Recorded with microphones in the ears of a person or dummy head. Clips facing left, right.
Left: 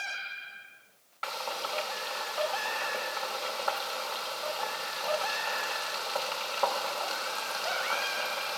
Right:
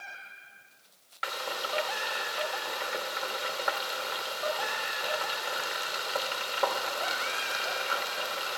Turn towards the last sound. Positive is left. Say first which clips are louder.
# even
turn(degrees=-20)  # may be behind; listen again after turning